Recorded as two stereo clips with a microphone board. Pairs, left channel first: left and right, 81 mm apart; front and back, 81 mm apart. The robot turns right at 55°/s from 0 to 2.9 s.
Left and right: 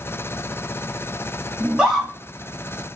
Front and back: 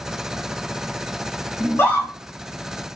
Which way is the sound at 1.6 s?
30° right.